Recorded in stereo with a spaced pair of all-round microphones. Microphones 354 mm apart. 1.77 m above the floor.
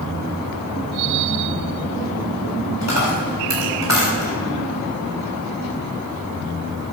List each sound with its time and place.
2.8 s a dropped coin: 50° right (ahead or behind), 4 m